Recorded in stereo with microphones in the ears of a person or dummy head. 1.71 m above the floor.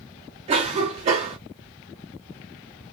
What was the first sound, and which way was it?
A cough, 35° right (ahead or behind).